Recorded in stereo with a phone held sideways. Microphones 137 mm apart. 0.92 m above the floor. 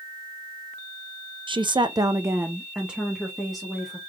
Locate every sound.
1.5 s a woman speaking: 35° right (ahead or behind), 0.5 m; by 4.0 s centre (ahead or behind), 1.5 m